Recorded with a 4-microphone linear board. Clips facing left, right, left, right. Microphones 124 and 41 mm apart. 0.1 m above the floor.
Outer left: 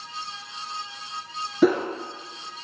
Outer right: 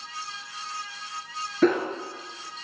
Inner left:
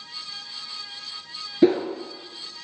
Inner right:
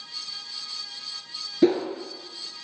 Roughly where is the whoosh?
Centre.